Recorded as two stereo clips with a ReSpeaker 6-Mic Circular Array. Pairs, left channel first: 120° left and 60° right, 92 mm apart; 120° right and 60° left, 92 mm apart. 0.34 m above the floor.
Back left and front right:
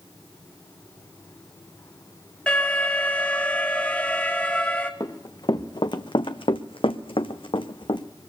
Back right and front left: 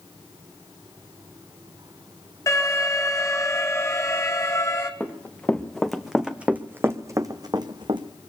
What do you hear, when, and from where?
2.5 s an alarm: 165° right, 2 m
5.0 s running footsteps: 165° left, 1.5 m; by 8.1 s 85° left, 1.2 m